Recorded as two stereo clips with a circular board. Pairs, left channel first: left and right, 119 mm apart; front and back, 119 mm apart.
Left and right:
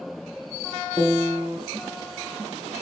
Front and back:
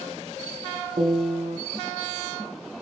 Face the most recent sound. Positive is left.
turn(degrees=-160)